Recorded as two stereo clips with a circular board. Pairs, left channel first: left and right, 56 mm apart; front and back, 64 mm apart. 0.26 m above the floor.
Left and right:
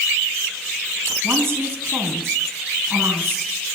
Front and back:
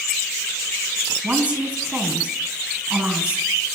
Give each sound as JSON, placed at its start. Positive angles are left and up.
{"t": 1.2, "sound": "a woman speaking", "azimuth_deg": -115, "distance_m": 1.8}